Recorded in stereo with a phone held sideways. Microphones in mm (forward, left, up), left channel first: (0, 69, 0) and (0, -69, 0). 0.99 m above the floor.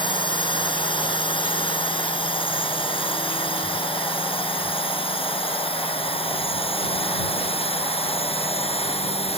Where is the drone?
40° left (ahead or behind); by 9.4 s 50° left (ahead or behind).